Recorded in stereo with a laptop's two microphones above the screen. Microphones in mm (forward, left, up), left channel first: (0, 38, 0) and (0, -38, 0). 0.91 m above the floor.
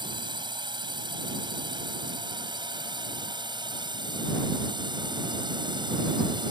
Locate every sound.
0.0 s a drone: 70° right (ahead or behind)